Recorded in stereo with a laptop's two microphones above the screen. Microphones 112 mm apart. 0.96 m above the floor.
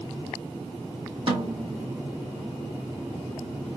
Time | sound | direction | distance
1.3 | a snare drum | 55° right (ahead or behind) | 1.7 m